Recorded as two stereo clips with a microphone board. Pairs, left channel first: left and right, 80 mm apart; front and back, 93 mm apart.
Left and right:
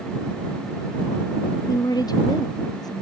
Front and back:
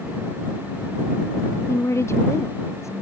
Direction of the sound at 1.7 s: 60° left.